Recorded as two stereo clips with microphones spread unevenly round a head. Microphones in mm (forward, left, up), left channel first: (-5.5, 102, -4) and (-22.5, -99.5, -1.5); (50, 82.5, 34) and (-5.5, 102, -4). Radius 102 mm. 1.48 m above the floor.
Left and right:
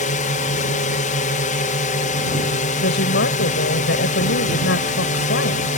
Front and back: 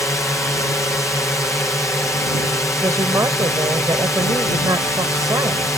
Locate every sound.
0.0 s a drone: 40° left
2.8 s a woman speaking: 125° left